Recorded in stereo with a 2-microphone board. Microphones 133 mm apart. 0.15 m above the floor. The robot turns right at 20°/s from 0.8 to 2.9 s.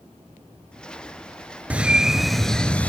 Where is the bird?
10° right (ahead or behind), 0.6 m; by 2.9 s 10° left (ahead or behind), 0.6 m.